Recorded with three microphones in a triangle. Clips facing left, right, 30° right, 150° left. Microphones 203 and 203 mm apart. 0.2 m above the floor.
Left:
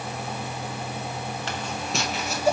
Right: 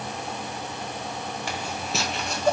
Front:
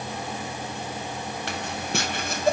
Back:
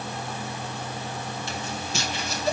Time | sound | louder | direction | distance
1.5 | footsteps | even, front 2 dB | 10° right | 2 m